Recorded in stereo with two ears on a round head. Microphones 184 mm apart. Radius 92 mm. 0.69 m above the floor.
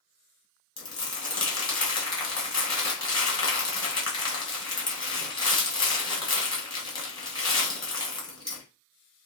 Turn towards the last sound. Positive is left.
turn(degrees=25)  # may be behind; listen again after turning